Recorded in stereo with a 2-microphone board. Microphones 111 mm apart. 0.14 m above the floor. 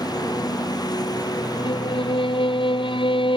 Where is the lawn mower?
35° left (ahead or behind).